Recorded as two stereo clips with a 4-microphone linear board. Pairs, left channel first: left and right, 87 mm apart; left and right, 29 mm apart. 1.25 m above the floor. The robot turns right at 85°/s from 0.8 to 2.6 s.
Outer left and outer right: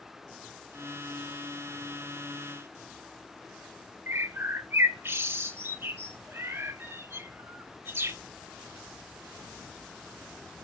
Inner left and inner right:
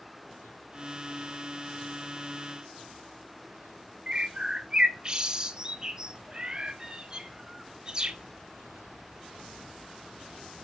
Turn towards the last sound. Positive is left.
turn(degrees=-25)  # may be behind; listen again after turning